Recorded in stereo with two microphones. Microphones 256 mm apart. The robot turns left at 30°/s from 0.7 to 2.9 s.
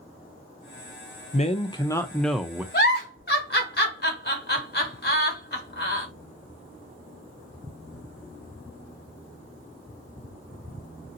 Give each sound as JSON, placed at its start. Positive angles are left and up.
{"t": 1.3, "sound": "a man speaking", "azimuth_deg": 30, "distance_m": 0.5}
{"t": 2.7, "sound": "a giggle", "side_deg": 40, "distance_m": 0.9}